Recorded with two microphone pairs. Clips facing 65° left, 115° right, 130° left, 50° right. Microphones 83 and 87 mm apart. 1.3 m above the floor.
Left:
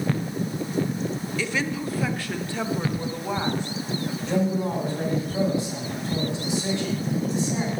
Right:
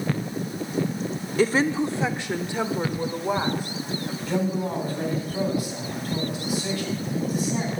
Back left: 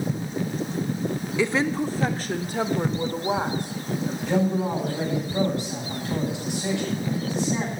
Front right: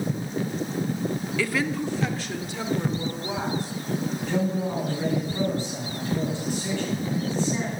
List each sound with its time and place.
1.4 s a woman speaking: 165° right, 0.6 m; by 4.2 s 160° left, 2.5 m
4.3 s a man speaking: 125° left, 9.5 m